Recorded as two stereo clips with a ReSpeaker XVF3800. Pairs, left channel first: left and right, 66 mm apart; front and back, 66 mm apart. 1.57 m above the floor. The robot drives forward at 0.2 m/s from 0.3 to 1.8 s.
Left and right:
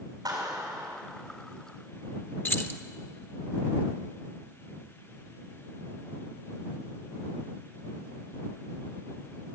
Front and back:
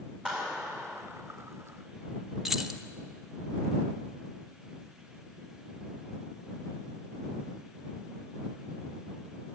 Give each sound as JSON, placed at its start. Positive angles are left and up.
{"t": 0.2, "sound": "a clap", "azimuth_deg": -105, "distance_m": 5.5}
{"t": 2.5, "sound": "keys jangling", "azimuth_deg": 100, "distance_m": 0.8}